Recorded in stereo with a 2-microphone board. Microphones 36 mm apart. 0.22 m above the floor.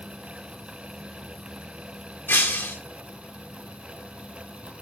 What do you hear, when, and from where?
2.3 s breaking glass: 80° left, 1.5 m